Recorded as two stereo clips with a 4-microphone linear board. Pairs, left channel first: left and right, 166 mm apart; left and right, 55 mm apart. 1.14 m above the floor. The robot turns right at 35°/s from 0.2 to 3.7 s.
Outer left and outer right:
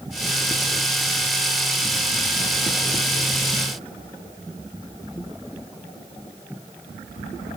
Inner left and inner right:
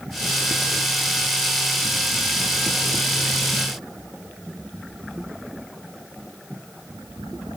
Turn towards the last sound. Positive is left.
No sound to turn to.